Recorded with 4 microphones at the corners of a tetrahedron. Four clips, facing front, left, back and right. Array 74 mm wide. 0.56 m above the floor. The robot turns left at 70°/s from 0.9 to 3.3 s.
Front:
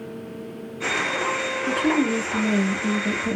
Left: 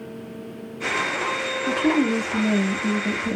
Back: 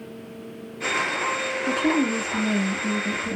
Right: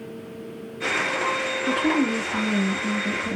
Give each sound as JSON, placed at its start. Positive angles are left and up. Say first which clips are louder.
{"t": 1.7, "sound": "a woman speaking", "louder": "left 2 dB, front 1 dB", "azimuth_deg": 140, "distance_m": 0.6}